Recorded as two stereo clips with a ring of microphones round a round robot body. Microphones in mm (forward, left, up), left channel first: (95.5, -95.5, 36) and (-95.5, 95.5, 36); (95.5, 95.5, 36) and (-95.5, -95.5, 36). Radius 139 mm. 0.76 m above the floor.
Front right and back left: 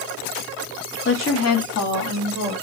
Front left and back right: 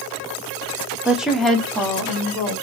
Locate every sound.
1.1 s a woman speaking: 55° right, 0.8 m; by 2.5 s 40° right, 2.5 m